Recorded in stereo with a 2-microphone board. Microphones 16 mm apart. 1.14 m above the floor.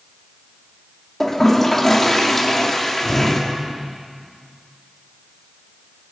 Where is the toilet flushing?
25° left (ahead or behind), 3 m.